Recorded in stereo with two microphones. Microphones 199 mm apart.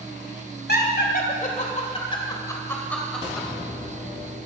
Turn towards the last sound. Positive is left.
turn(degrees=-5)  # may be behind; listen again after turning